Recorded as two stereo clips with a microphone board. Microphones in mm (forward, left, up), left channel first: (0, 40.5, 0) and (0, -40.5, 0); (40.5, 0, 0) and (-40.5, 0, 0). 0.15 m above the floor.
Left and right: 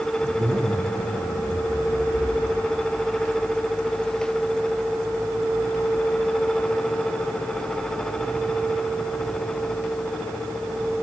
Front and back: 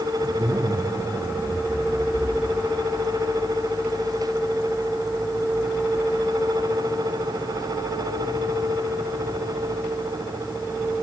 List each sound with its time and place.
0.2 s a zipper: 130° right, 3 m